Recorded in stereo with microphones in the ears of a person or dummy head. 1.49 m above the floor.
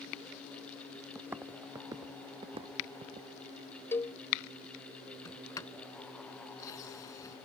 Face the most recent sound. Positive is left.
turn(degrees=25)  # may be behind; listen again after turning